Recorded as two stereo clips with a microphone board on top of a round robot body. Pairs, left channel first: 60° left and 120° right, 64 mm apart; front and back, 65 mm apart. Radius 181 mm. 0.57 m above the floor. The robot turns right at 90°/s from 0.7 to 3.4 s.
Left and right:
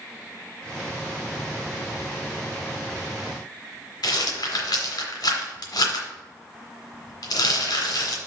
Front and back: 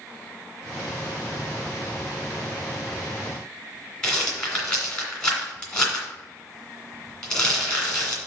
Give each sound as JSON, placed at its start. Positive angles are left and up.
{"t": 4.0, "sound": "a rattle", "azimuth_deg": 80, "distance_m": 2.0}